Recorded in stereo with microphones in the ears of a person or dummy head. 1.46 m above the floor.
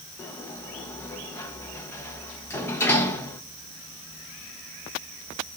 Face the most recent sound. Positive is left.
turn(degrees=10)  # may be behind; listen again after turning